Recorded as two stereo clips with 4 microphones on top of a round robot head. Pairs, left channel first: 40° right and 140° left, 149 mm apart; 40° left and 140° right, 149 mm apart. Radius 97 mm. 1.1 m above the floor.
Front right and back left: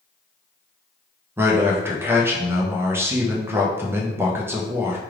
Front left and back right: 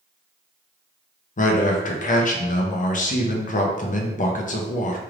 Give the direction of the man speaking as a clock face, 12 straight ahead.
10 o'clock.